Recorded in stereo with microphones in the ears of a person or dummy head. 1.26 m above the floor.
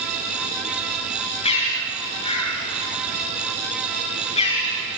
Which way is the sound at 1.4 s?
30° left (ahead or behind).